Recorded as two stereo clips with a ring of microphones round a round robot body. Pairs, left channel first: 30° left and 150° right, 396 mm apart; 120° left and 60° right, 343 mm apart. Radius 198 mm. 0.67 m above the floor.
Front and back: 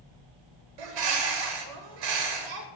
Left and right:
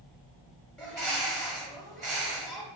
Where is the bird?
155° right, 0.7 m.